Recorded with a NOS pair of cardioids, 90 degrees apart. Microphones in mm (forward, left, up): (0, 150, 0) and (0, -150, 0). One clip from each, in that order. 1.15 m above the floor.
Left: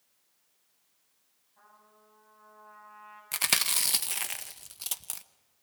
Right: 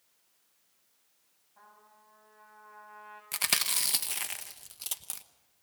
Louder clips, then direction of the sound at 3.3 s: Left 2 dB; 15° left.